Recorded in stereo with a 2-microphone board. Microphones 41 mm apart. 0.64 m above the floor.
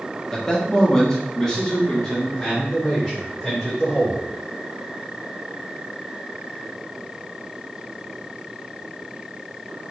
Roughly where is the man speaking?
Centre.